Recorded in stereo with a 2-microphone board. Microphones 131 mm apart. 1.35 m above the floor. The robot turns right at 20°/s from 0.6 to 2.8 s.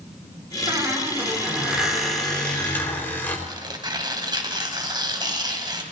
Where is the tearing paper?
35° right (ahead or behind), 2.5 m.